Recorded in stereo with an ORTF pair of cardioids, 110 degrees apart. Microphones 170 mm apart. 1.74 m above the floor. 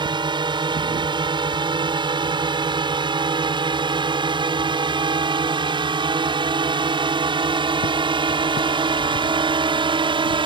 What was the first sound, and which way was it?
A drone, 25° right.